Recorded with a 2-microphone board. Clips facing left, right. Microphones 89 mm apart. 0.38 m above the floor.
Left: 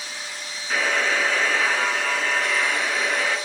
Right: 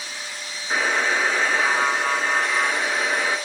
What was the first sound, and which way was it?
A buzzer, 20° right (ahead or behind).